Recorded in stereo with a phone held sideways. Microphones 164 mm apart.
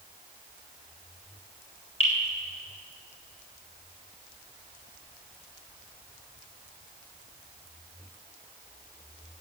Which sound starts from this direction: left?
Dripping, at 2.0 s.